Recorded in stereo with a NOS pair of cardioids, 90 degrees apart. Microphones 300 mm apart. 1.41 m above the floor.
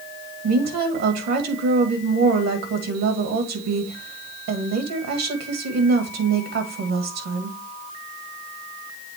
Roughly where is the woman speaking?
Right.